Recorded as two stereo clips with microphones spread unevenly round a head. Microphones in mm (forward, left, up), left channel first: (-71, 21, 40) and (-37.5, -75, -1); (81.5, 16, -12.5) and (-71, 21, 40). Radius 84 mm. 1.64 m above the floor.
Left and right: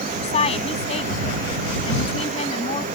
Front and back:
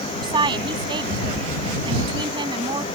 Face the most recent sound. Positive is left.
turn(degrees=120)